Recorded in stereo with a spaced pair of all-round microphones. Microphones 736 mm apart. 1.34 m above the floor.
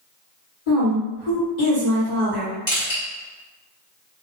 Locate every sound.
0.7 s a woman speaking: 70° left (ahead or behind), 1.8 m
2.7 s crushing: 60° left (ahead or behind), 1.7 m